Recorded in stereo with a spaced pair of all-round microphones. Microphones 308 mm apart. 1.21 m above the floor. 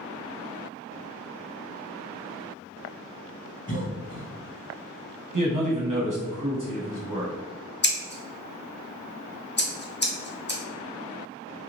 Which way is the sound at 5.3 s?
80° right.